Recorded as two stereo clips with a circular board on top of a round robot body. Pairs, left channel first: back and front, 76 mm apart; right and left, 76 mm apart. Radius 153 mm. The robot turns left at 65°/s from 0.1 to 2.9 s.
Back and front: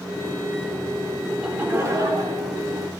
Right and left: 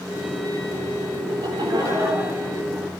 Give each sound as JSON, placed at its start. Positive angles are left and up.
{"t": 1.3, "sound": "laughter", "azimuth_deg": 90, "distance_m": 3.0}